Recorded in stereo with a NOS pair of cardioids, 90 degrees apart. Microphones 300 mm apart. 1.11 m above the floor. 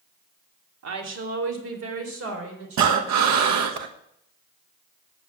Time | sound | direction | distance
0.8 | a woman speaking | 60° right | 3 m
2.8 | breathing | 70° right | 1.4 m